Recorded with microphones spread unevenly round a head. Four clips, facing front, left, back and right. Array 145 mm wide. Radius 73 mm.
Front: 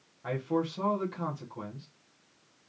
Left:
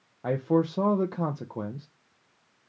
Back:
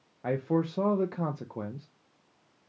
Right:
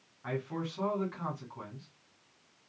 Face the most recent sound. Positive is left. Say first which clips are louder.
# left 12 dB, back 2 dB
turn(degrees=115)